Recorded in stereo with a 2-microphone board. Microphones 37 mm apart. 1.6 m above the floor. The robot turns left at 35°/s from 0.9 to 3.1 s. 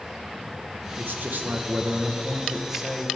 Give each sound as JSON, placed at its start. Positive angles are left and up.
{"t": 1.0, "sound": "a man speaking", "azimuth_deg": -105, "distance_m": 1.3}